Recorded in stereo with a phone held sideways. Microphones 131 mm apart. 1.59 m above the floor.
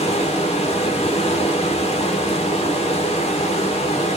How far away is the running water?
About 1.1 m.